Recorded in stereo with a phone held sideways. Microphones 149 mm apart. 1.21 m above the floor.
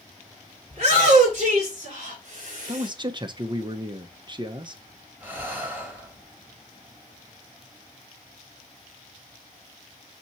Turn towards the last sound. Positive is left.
turn(degrees=-10)  # may be behind; listen again after turning